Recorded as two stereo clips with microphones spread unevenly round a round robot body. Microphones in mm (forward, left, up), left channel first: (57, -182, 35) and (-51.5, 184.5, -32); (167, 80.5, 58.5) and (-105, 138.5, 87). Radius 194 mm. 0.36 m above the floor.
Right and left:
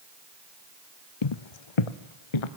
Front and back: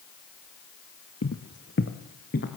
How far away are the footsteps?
About 0.8 m.